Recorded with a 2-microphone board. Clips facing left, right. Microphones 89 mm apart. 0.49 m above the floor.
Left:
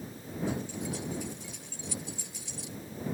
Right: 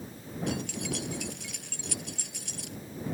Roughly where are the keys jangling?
Right.